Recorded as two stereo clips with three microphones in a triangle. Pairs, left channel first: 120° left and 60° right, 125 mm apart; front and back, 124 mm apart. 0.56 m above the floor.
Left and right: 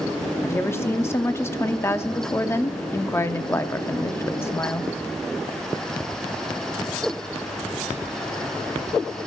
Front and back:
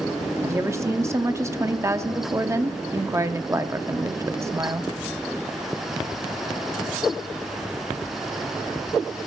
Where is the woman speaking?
155° left, 0.6 m.